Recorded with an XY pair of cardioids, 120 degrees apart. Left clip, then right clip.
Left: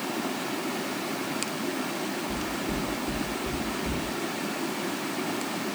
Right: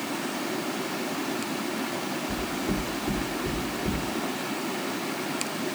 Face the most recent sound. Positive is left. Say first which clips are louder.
# right 1 dB
turn(degrees=-50)